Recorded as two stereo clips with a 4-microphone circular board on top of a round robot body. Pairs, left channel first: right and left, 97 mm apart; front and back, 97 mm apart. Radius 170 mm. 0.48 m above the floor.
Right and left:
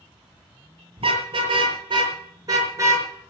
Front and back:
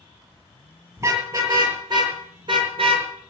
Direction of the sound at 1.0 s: 120° left.